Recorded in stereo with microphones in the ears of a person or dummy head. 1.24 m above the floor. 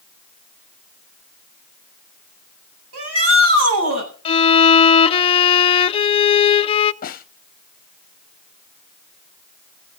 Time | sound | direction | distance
2.9 | a shout | 80° right | 7.5 m
4.2 | a violin | 30° left (ahead or behind) | 0.5 m
7.0 | a snare drum | 40° left (ahead or behind) | 0.8 m